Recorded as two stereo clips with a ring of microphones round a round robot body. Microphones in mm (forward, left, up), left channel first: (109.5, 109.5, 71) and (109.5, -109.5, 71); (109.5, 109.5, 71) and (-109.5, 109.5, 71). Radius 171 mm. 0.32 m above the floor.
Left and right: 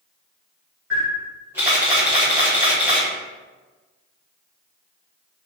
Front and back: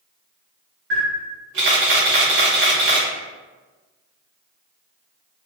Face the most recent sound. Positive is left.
turn(degrees=-170)